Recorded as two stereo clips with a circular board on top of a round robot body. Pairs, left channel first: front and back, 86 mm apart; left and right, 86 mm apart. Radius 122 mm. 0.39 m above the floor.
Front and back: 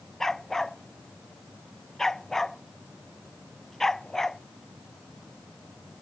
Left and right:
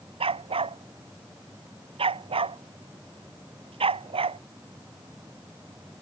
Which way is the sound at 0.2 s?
85° right.